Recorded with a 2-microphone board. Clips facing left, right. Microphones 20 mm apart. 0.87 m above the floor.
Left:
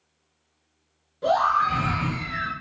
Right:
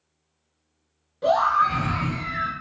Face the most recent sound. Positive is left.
turn(degrees=20)  # may be behind; listen again after turning